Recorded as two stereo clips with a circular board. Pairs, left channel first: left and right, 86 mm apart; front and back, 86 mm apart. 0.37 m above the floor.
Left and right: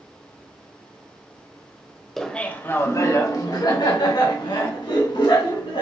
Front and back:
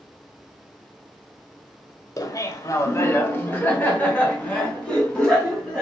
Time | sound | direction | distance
2.2 | laughter | 5° left | 1.2 m